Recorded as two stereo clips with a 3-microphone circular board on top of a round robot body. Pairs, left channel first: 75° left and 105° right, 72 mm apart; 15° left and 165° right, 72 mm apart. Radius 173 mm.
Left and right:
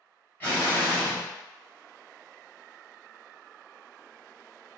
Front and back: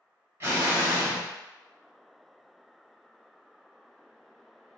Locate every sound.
0.4 s an explosion: 145° left, 1.9 m